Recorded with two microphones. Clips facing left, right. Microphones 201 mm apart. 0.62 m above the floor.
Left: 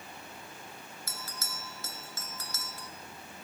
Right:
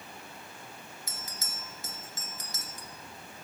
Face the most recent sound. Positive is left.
turn(degrees=-15)  # may be behind; listen again after turning